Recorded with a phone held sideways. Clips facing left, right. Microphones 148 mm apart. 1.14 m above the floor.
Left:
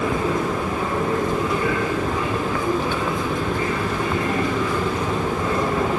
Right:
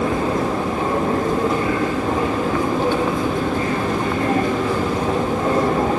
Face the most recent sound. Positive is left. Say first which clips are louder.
# right 2 dB
turn(degrees=-35)  # may be behind; listen again after turning